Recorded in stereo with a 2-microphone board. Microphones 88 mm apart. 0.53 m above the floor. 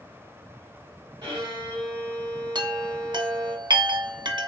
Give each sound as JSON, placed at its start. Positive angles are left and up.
{"t": 1.2, "sound": "a violin", "side_deg": -55, "distance_m": 2.0}
{"t": 2.5, "sound": "a chime", "side_deg": -55, "distance_m": 0.5}